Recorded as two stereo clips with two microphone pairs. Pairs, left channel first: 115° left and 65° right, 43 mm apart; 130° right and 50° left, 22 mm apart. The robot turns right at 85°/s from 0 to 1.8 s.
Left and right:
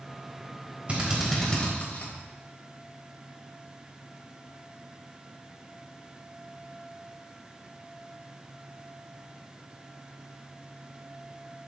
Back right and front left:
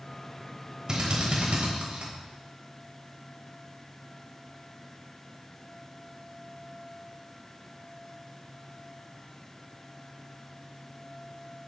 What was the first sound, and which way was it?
A drill, 10° right.